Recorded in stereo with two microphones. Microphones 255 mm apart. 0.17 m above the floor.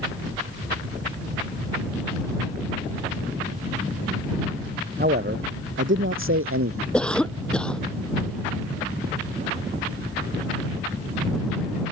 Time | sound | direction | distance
5.0 | a man speaking | 40° right (ahead or behind) | ?
6.9 | a cough | 5° left (ahead or behind) | ?